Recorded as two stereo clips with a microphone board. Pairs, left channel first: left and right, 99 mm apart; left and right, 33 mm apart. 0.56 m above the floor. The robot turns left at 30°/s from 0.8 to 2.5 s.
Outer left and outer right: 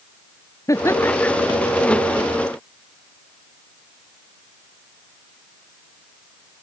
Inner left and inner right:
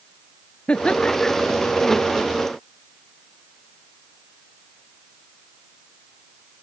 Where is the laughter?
30° left (ahead or behind); by 1.3 s 15° left (ahead or behind).